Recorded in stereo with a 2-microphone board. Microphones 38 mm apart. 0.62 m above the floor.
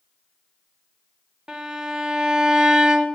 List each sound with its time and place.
1.5 s a violin: 25° right (ahead or behind), 0.5 m